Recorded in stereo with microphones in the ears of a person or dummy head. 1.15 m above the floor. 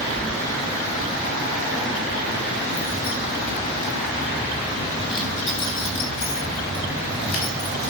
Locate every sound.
0.2 s keys jangling: centre (ahead or behind), 0.8 m; by 7.9 s 70° left (ahead or behind), 5 m